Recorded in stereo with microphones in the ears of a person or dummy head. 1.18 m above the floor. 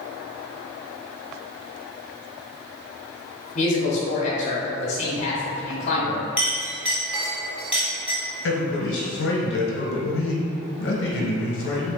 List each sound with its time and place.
3.5 s a woman speaking: 40° left (ahead or behind), 0.8 m
6.4 s a clink: 5° right (ahead or behind), 1.1 m
8.4 s a man speaking: 65° left (ahead or behind), 1.0 m